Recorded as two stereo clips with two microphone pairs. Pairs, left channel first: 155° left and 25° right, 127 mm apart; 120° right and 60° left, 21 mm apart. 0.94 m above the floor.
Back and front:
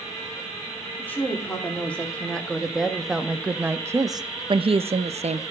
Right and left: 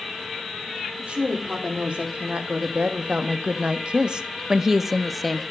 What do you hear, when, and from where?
1.0 s a woman speaking: 80° left, 2.5 m; by 5.4 s 35° right, 1.0 m